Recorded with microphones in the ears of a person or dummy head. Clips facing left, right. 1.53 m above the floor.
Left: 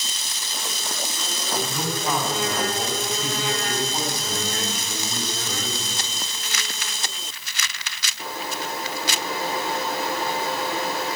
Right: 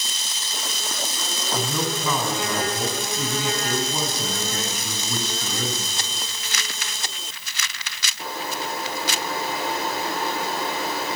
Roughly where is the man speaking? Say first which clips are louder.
Right 2 dB; right.